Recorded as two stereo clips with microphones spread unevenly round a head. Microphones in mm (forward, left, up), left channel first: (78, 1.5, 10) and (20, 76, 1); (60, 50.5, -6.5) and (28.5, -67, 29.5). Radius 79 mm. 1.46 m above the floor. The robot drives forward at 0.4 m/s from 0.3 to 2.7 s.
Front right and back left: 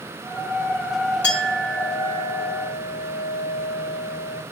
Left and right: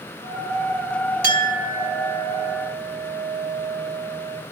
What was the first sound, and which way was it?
A clink, 130° right.